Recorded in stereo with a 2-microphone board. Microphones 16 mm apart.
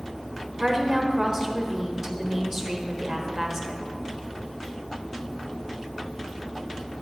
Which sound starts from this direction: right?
A woman speaking, at 0.6 s.